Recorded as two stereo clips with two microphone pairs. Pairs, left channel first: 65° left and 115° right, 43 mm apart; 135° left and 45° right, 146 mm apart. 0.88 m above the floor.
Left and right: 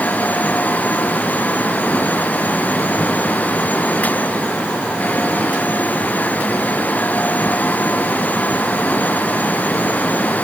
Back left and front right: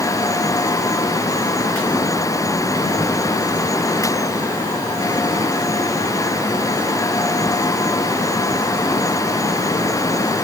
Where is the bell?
No bell in this recording.